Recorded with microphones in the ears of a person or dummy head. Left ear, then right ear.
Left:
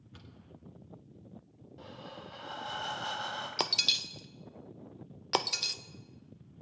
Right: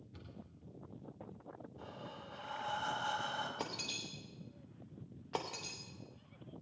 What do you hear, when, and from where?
0.1 s a cupboard door: 35° left (ahead or behind), 2 m
1.8 s breathing: 20° left (ahead or behind), 1.6 m
3.6 s breaking glass: 70° left (ahead or behind), 0.6 m